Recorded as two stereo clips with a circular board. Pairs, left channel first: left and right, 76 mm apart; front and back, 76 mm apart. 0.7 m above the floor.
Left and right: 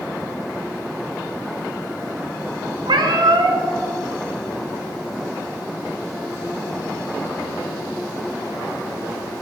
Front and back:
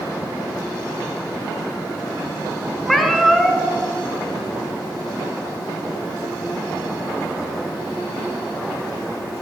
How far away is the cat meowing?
About 1.0 m.